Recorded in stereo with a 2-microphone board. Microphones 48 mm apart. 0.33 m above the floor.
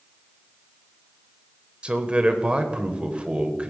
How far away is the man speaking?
About 1.0 m.